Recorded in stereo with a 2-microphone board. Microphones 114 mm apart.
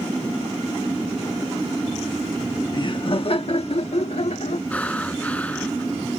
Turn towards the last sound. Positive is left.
turn(degrees=10)  # may be behind; listen again after turning